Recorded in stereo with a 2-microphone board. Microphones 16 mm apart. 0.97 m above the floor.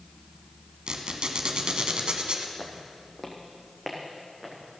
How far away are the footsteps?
About 1.7 m.